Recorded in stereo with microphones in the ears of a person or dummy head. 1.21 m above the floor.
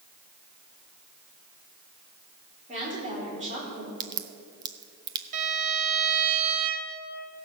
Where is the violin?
40° right (ahead or behind), 1.5 m.